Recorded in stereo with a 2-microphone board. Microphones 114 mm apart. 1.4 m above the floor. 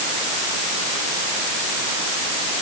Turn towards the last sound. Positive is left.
No sound to turn to.